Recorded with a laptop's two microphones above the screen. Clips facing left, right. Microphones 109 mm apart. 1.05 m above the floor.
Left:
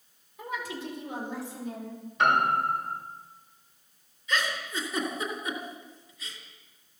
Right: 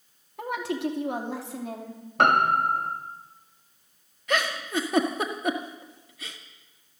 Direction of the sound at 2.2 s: 60° right (ahead or behind).